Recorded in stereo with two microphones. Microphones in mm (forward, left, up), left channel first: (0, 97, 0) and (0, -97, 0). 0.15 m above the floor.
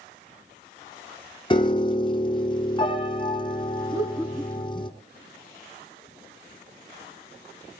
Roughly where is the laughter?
Centre.